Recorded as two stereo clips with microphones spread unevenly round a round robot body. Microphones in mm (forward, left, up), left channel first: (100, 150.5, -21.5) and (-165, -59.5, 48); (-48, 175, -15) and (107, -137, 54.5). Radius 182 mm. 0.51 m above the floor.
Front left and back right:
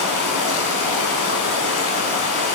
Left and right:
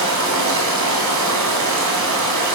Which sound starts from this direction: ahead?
Running water, at 0.0 s.